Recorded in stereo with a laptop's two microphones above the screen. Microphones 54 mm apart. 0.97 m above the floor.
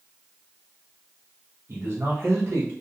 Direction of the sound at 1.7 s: 50° right (ahead or behind).